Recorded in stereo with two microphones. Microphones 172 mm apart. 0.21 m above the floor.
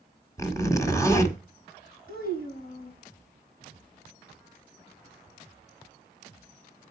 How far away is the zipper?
About 1.5 m.